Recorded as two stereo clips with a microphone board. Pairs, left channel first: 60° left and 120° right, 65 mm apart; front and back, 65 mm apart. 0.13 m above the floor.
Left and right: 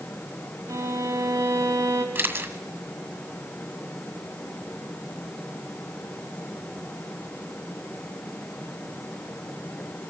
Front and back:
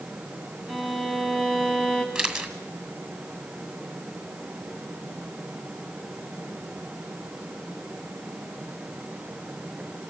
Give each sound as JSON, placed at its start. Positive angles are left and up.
{"t": 0.7, "sound": "a violin", "azimuth_deg": -80, "distance_m": 2.0}
{"t": 2.1, "sound": "a camera shutter", "azimuth_deg": -105, "distance_m": 1.9}